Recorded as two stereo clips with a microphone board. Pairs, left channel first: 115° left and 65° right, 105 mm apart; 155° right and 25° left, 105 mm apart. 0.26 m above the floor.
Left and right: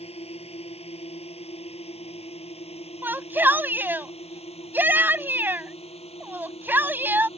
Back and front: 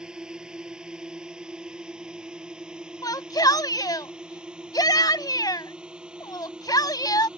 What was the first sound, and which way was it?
A drone, 105° left.